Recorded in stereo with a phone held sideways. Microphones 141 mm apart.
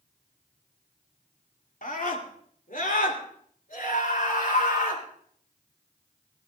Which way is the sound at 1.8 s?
70° left (ahead or behind).